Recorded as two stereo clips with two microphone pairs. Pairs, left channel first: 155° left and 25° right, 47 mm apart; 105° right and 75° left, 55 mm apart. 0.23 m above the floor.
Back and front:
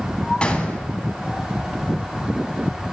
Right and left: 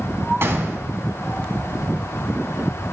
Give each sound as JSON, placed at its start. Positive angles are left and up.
{"t": 0.4, "sound": "a gunshot", "azimuth_deg": 95, "distance_m": 1.2}